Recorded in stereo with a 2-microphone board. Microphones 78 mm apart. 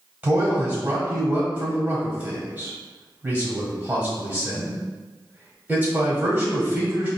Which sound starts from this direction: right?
A man speaking, at 0.2 s.